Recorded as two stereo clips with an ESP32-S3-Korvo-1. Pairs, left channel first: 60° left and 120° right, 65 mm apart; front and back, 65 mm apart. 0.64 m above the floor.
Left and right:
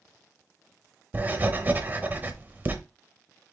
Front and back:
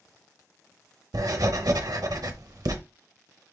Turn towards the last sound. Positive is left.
turn(degrees=180)